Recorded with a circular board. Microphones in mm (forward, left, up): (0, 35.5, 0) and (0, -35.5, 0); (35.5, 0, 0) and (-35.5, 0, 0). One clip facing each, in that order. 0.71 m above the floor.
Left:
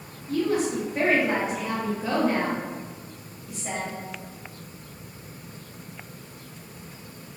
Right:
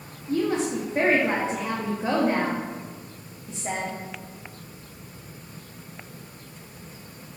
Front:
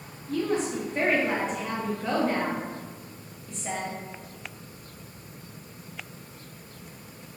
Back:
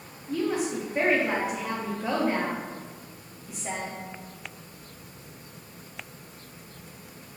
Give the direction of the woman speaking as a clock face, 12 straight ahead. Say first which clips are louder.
Even, even; 4 o'clock.